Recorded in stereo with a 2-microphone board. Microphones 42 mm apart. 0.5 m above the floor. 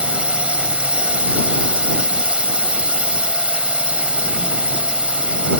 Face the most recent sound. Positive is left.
turn(degrees=-25)  # may be behind; listen again after turning